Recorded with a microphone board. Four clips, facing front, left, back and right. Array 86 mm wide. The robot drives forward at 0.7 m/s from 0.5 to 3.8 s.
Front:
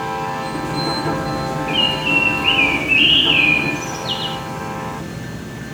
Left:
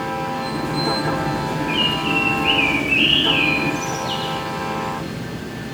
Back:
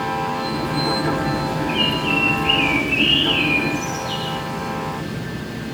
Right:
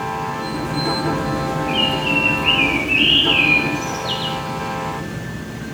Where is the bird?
15° right, 3 m; by 4.4 s 25° right, 1.6 m.